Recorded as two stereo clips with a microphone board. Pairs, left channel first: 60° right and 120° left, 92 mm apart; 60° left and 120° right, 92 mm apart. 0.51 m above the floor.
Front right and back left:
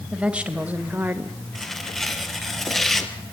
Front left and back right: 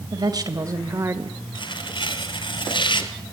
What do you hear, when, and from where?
0.1 s a woman speaking: 160° right, 3 m; by 1.4 s 175° left, 1.7 m
1.6 s tearing paper: 30° left, 2.5 m